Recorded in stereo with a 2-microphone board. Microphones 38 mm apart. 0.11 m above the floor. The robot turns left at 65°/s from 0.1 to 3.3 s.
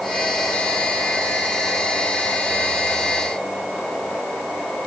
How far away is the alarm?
I don't hear an alarm.